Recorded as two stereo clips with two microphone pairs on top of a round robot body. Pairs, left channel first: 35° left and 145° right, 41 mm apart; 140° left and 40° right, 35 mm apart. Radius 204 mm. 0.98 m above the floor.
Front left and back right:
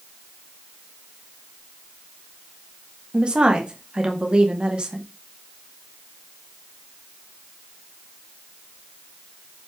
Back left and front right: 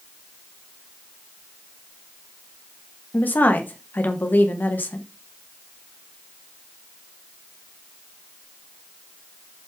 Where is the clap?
I don't hear a clap.